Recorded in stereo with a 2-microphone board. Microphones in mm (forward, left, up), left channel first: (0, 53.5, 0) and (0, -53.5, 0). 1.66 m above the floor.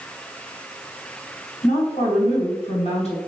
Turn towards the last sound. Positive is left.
turn(degrees=80)